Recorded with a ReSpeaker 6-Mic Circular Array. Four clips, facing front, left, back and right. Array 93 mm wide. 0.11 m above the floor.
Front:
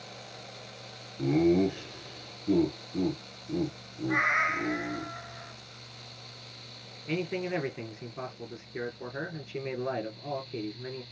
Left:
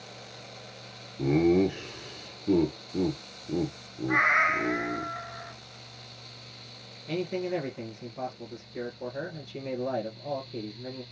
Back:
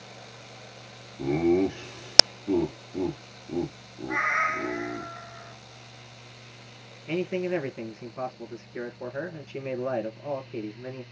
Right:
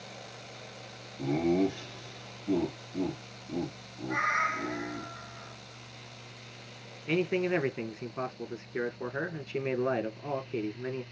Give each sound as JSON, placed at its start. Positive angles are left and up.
{"t": 1.2, "sound": "laughter", "azimuth_deg": 110, "distance_m": 1.3}
{"t": 4.1, "sound": "a cat meowing", "azimuth_deg": 90, "distance_m": 0.6}
{"t": 7.1, "sound": "a man speaking", "azimuth_deg": -85, "distance_m": 1.4}